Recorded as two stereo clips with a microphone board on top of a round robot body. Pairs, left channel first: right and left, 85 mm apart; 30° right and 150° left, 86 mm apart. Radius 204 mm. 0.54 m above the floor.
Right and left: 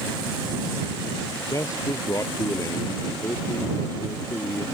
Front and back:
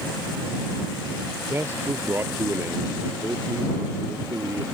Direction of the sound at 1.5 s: 145° right.